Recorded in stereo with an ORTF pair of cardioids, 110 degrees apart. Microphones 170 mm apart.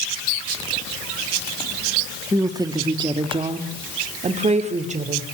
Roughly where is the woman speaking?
Ahead.